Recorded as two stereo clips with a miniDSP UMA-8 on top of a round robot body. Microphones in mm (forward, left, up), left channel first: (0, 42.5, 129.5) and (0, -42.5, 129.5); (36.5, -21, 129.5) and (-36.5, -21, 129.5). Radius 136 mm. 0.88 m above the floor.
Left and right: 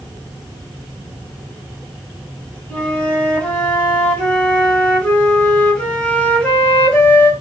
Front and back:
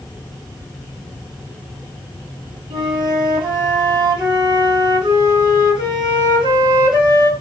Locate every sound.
2.7 s a flute: 165° left, 1.3 m